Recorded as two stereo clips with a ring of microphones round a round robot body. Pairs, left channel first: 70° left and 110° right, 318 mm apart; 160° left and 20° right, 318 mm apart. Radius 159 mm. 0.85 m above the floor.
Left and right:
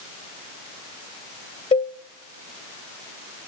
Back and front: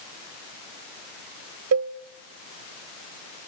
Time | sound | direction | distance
1.7 | a cowbell | straight ahead | 0.6 m